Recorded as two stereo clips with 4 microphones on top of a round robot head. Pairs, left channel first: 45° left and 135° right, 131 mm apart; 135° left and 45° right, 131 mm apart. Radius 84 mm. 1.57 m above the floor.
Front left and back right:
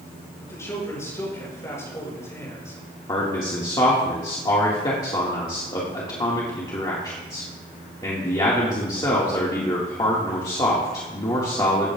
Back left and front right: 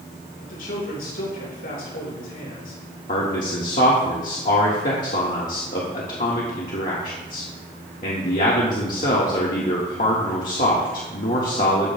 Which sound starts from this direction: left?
A man speaking, at 3.1 s.